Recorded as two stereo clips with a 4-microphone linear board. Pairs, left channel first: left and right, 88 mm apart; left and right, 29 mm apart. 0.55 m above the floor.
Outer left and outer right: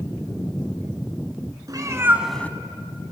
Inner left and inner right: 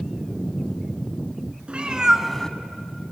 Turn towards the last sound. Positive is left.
turn(degrees=65)  # may be behind; listen again after turning